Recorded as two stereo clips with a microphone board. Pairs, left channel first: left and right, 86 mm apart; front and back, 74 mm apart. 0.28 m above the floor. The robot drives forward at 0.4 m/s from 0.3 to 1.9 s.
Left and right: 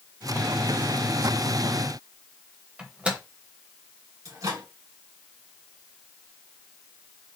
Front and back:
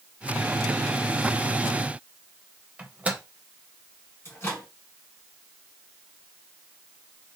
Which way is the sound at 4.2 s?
50° right.